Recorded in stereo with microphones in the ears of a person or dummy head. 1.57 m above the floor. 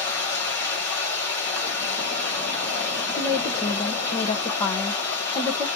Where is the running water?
10° left (ahead or behind), 1.8 m.